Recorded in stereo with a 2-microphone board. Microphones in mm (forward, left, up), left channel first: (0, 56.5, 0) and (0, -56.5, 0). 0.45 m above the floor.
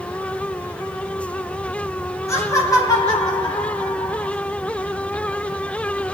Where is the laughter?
25° left (ahead or behind), 3.5 m; by 4.3 s 45° left (ahead or behind), 4 m.